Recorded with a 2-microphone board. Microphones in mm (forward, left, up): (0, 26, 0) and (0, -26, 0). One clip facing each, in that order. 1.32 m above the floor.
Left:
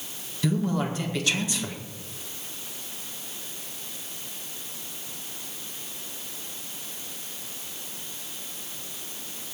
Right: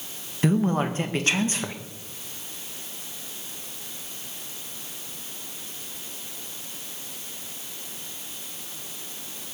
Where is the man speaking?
40° right (ahead or behind), 1.7 m.